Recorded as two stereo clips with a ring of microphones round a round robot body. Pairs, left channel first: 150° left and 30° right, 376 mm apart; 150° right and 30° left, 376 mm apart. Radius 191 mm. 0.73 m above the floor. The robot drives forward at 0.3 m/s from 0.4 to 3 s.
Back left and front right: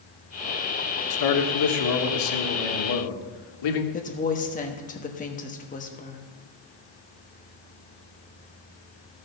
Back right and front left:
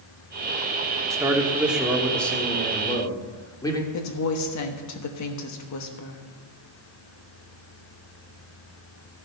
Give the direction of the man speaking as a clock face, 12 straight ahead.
8 o'clock.